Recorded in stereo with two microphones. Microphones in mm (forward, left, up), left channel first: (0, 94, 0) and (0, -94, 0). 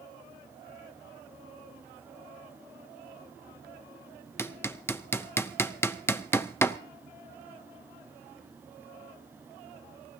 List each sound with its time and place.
4.4 s hammering: 10° left (ahead or behind), 0.6 m